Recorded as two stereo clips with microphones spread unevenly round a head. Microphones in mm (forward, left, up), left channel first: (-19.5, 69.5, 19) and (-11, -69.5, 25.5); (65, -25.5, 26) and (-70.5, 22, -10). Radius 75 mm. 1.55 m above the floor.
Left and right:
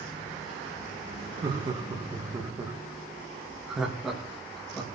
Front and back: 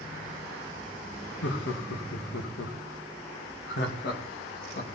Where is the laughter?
25° right, 2.5 m; by 4.9 s 10° left, 3 m.